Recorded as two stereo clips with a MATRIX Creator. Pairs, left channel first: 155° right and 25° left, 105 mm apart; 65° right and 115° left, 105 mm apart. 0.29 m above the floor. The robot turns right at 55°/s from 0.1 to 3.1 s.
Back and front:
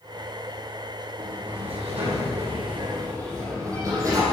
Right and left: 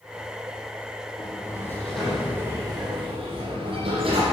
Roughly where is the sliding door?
Ahead right.